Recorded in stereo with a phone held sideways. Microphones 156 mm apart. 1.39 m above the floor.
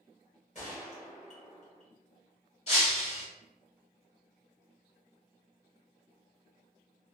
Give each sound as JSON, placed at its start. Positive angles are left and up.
{"t": 0.6, "sound": "a gunshot", "side_deg": 45, "distance_m": 1.3}
{"t": 2.7, "sound": "breaking glass", "side_deg": 40, "distance_m": 1.6}